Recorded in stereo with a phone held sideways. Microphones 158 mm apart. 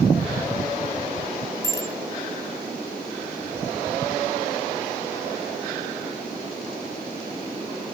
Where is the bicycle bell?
20° left (ahead or behind), 2.5 m.